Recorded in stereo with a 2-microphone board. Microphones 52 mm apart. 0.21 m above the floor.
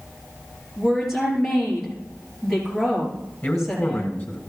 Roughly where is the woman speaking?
Centre.